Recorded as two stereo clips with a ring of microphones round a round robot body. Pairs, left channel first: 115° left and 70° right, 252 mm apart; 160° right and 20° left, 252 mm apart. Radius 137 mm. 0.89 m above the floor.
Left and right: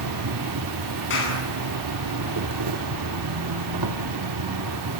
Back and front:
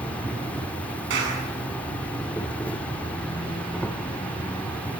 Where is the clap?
70° left, 9 m.